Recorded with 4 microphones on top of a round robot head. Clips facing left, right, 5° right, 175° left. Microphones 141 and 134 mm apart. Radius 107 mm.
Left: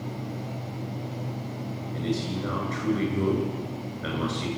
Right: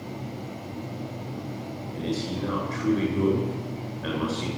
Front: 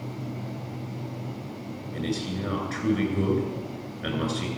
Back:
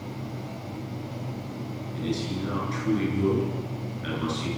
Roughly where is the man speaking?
Ahead.